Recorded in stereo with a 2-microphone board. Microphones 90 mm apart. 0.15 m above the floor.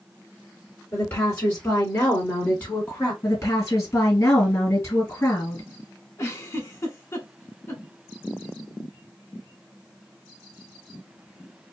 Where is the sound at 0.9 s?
20° left (ahead or behind), 2 m; by 3.1 s 15° left (ahead or behind), 1.7 m.